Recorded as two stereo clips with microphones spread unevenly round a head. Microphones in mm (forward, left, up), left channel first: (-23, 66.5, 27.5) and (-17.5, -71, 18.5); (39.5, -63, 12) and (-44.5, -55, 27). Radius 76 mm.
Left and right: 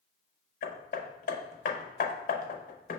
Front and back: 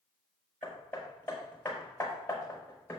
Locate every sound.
0.6 s hammering: 65° left, 0.6 m